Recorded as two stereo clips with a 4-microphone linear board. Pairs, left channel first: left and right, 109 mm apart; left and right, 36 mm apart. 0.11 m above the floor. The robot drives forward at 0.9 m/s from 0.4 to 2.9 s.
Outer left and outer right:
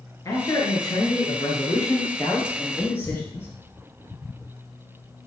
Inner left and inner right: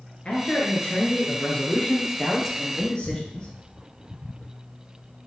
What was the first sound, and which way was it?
A man speaking, 35° left (ahead or behind).